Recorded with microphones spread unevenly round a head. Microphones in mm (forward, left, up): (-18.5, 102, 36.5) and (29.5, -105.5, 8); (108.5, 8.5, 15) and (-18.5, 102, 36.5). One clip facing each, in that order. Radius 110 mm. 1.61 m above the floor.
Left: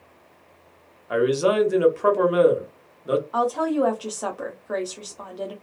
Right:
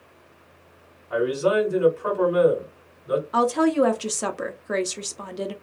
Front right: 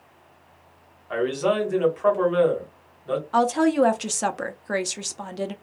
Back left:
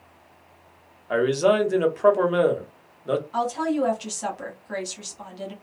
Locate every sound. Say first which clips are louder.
1.1 s a man speaking: left 2 dB, back left 3 dB; 95° left, 1.1 m
3.3 s a woman speaking: right 3 dB, front right 10 dB; 15° right, 0.5 m